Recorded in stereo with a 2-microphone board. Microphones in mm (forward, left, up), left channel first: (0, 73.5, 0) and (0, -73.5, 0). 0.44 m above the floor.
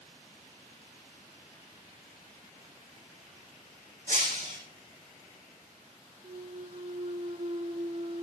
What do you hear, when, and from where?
4.1 s breaking glass: 60° right (ahead or behind), 8.5 m
6.2 s a clunk: 50° right (ahead or behind), 0.5 m